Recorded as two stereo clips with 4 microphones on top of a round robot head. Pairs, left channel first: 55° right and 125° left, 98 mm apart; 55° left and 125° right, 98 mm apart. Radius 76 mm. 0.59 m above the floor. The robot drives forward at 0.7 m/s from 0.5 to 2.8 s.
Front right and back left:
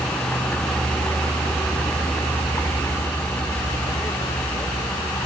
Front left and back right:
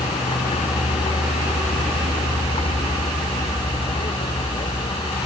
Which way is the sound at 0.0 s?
20° left.